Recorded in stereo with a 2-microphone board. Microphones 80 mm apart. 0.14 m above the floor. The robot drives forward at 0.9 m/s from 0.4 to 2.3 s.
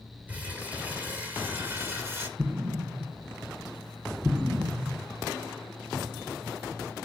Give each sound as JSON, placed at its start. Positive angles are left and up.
{"t": 0.3, "sound": "crumpling", "side_deg": -20, "distance_m": 3.5}
{"t": 2.4, "sound": "an explosion", "side_deg": -20, "distance_m": 1.3}